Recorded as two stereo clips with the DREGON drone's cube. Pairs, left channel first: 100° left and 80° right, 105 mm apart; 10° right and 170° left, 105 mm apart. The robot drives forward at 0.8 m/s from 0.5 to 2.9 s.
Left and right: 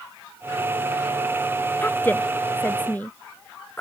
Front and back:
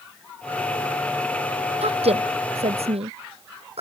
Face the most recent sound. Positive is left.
turn(degrees=175)